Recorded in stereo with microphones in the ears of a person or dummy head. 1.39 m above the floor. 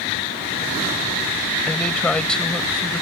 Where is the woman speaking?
5° left (ahead or behind); by 3.0 s centre (ahead or behind).